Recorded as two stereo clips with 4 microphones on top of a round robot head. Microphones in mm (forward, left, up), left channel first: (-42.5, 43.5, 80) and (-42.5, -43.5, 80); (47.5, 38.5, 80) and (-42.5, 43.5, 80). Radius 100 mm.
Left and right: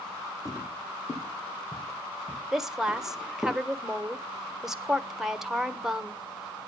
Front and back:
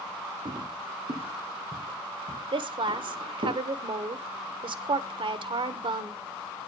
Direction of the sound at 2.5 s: 175° right.